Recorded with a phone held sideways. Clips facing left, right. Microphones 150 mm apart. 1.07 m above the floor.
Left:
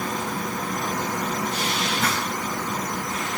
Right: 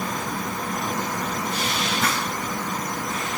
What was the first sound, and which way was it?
Only background noise.